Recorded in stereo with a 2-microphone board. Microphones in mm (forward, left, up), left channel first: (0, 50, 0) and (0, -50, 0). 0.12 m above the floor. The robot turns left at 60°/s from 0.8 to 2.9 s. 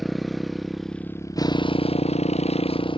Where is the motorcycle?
Straight behind; by 3.0 s 55° left.